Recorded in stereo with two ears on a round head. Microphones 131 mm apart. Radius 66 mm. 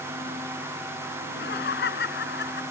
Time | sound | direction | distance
1.2 | laughter | 80° left | ?